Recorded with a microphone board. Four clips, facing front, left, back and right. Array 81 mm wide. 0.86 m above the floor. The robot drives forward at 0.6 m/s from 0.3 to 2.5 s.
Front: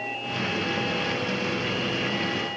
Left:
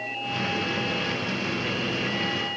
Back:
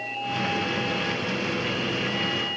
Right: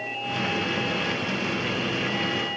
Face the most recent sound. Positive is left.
No sound to turn to.